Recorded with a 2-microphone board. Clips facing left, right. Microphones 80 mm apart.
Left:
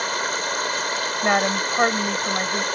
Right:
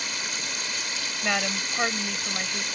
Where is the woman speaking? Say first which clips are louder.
Left 8 dB; 35° left (ahead or behind).